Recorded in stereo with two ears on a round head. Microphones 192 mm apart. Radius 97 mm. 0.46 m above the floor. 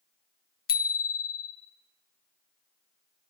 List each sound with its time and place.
0.7 s a bicycle bell: 45° left (ahead or behind), 2.5 m